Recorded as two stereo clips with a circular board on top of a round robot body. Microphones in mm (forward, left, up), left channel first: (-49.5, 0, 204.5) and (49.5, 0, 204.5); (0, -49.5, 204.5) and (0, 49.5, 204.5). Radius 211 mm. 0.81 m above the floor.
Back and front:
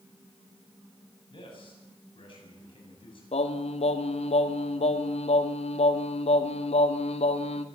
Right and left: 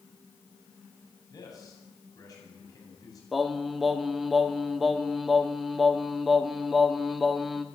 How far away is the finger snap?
I don't hear a finger snap.